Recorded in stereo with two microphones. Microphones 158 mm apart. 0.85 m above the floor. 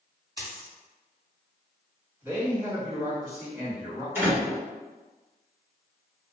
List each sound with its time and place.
0.4 s a dropped coin: 30° left (ahead or behind), 1.2 m
2.2 s a man speaking: 15° right (ahead or behind), 1.5 m
4.2 s a door slam: 15° right (ahead or behind), 1.0 m